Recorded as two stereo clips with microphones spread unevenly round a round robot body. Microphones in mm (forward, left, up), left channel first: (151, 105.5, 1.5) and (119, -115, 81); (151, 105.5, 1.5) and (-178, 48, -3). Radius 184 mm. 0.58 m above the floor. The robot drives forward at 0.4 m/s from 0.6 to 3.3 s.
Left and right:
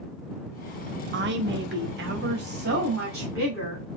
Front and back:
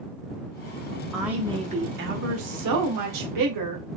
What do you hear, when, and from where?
1.1 s a woman speaking: 75° right, 0.6 m; by 3.9 s 165° right, 1.0 m